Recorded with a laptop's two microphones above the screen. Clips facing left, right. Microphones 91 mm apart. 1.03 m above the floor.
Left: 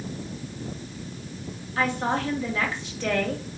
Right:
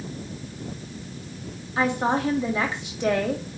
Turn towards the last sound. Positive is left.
turn(degrees=-20)  # may be behind; listen again after turning